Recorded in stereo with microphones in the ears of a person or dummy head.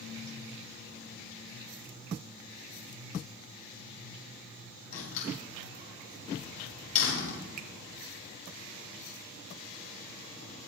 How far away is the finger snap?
About 1.4 m.